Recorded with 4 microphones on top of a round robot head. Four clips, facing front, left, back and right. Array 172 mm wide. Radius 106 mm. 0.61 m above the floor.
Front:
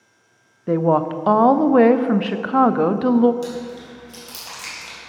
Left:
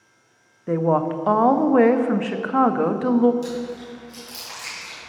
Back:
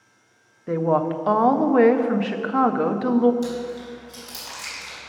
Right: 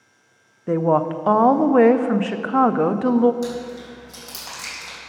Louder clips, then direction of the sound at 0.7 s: Right 1 dB, front 3 dB; 25° right.